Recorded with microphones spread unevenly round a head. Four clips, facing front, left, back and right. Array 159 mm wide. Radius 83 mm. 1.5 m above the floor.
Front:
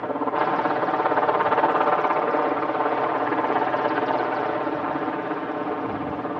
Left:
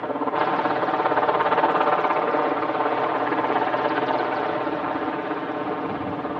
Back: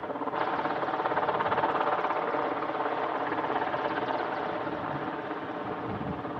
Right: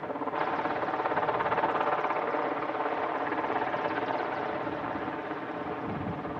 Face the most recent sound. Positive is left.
turn(degrees=45)